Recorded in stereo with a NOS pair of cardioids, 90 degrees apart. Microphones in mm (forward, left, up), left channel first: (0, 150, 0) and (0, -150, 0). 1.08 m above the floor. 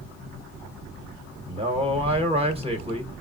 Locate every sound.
1.5 s a man speaking: 20° right, 1.0 m